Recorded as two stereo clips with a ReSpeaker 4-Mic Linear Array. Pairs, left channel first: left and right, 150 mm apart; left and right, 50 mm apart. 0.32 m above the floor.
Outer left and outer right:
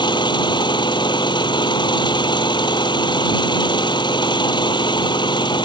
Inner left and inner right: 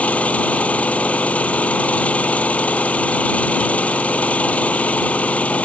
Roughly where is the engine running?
Left.